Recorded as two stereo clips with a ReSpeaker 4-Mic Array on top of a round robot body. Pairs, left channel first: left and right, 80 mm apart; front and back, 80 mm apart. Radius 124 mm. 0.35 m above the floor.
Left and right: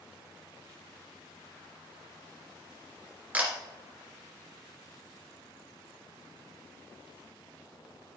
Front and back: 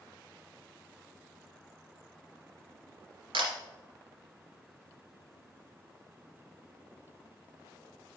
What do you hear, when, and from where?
3.3 s a camera shutter: 165° right, 2 m